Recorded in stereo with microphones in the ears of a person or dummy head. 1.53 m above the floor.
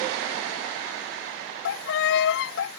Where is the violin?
65° left (ahead or behind).